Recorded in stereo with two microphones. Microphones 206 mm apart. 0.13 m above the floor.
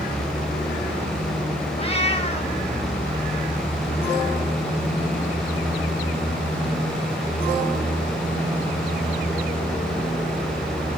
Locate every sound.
1.8 s a cat meowing: 30° left (ahead or behind), 2 m